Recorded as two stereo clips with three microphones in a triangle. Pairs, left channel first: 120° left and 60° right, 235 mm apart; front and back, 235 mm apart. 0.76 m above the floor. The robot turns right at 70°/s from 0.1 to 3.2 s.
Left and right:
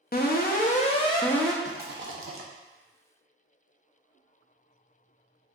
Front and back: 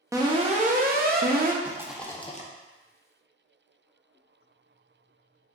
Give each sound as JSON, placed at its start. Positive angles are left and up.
{"t": 0.1, "sound": "an alarm", "azimuth_deg": 110, "distance_m": 0.6}
{"t": 1.6, "sound": "a rattle", "azimuth_deg": -110, "distance_m": 0.6}